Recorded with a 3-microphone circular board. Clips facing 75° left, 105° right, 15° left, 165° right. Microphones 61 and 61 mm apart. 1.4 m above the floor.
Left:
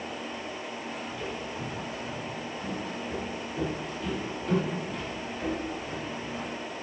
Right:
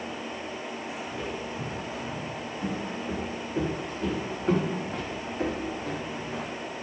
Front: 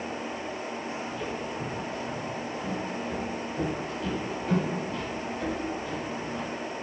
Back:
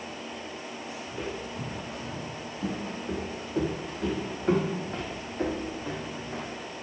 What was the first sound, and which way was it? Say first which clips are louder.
Footsteps: right 2 dB, front 2 dB; 170° right.